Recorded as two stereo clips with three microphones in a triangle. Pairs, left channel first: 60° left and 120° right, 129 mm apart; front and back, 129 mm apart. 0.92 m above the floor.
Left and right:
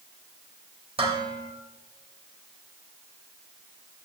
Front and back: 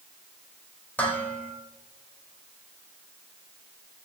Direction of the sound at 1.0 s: 75° right.